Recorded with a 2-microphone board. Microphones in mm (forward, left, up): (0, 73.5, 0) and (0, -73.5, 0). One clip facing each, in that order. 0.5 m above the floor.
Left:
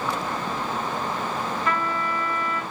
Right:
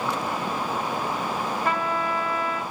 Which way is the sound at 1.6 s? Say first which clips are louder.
Right 2 dB; 55° right (ahead or behind).